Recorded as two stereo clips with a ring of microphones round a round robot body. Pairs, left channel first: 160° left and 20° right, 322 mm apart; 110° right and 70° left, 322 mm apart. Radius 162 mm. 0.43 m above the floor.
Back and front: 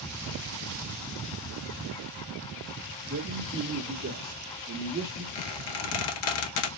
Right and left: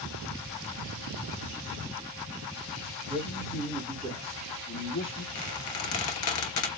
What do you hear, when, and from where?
3.1 s a man speaking: 5° right, 1.3 m; by 5.2 s 100° right, 1.3 m
5.3 s a squeak: 160° right, 0.7 m